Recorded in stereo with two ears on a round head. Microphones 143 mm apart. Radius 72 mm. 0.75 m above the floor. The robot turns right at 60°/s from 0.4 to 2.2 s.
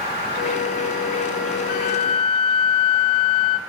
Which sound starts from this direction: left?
A flute, at 1.7 s.